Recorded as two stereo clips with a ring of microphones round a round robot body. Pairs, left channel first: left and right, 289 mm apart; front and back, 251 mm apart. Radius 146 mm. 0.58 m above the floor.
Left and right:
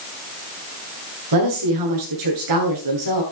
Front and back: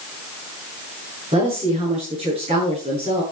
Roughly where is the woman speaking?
Right.